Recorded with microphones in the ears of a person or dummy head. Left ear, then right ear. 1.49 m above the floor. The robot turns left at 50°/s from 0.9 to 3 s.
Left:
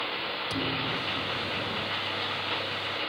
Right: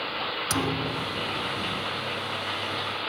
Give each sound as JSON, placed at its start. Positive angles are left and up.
{"t": 0.5, "sound": "a thud", "side_deg": -45}